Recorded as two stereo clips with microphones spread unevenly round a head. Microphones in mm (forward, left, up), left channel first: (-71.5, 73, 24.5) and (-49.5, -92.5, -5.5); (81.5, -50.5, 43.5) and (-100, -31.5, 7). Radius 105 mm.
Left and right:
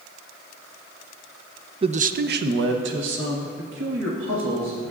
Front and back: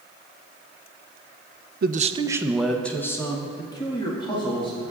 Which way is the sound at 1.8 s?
145° right.